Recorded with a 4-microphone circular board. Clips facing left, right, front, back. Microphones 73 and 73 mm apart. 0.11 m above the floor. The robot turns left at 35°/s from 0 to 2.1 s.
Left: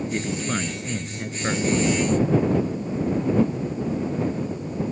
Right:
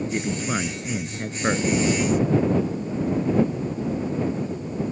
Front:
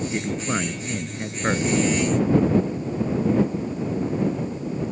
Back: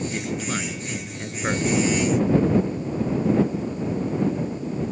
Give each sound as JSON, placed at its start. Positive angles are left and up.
{"t": 0.1, "sound": "a man speaking", "azimuth_deg": -15}